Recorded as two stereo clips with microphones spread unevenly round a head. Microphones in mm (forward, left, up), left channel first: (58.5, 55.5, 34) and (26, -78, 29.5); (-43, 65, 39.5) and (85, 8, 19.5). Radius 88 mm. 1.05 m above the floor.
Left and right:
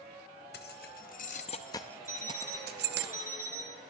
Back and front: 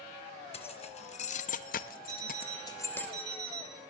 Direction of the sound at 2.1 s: 30° right.